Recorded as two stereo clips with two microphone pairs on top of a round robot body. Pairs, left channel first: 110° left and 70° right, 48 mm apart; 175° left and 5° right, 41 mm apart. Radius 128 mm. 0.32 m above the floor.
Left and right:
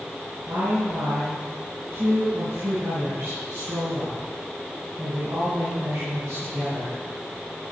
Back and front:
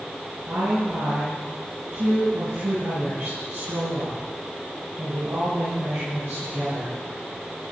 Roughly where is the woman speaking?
Ahead right.